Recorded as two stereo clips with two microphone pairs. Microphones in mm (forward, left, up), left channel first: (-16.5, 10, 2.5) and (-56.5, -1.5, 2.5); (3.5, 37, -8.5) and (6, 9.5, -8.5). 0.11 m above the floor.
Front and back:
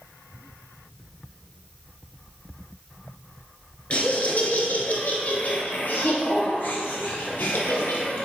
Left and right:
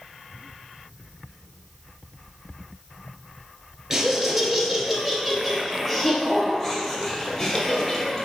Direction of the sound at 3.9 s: 20° right.